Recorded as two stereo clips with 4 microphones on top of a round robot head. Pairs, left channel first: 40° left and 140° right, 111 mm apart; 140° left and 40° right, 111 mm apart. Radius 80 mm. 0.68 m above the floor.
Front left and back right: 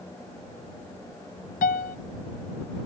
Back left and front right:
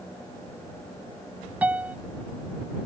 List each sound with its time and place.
1.6 s a piano: 35° left